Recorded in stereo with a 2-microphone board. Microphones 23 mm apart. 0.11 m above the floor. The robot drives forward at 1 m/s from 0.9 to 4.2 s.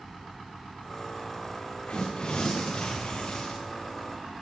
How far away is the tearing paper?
About 8.5 m.